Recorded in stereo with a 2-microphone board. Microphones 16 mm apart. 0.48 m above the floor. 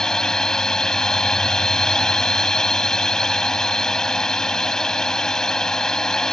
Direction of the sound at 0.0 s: 50° left (ahead or behind).